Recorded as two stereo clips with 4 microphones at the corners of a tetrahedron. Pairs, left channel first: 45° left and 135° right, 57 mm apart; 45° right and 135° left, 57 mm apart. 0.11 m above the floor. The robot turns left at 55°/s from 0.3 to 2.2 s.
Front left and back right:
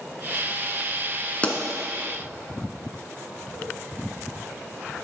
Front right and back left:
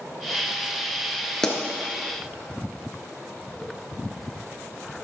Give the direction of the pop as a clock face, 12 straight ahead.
11 o'clock.